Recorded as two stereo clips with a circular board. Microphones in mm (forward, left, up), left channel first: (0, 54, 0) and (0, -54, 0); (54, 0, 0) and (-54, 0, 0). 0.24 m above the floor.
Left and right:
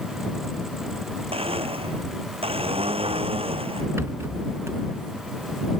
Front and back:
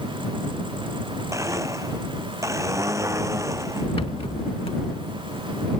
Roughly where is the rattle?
Ahead right.